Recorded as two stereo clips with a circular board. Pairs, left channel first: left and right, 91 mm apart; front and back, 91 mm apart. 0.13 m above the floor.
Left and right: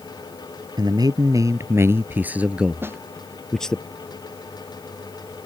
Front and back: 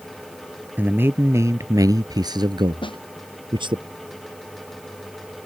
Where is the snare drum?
25° right.